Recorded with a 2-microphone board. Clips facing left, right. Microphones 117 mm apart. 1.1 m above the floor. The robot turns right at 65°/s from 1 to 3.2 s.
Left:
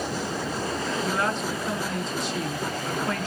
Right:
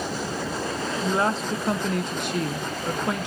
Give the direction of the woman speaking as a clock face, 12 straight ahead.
5 o'clock.